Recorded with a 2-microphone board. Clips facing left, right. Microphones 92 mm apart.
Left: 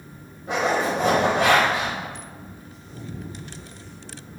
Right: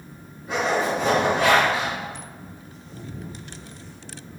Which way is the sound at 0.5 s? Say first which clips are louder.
Even; 45° left (ahead or behind).